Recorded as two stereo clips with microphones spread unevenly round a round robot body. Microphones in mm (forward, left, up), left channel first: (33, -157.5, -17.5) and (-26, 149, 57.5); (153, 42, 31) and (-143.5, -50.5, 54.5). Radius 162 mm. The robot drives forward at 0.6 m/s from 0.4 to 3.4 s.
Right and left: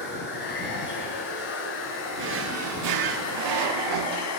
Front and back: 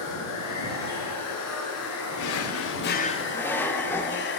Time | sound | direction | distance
0.0 | running water | 20° right | 3.5 m
2.2 | a drawer | 40° left | 1.0 m